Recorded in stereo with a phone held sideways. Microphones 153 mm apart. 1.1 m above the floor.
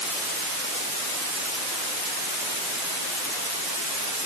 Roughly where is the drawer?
No drawer in this recording.